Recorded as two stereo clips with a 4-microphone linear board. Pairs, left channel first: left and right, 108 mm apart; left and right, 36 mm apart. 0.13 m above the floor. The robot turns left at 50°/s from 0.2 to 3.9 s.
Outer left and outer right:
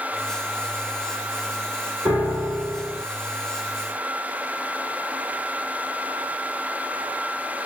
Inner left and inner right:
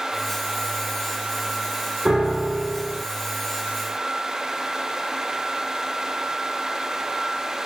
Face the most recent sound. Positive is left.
turn(degrees=115)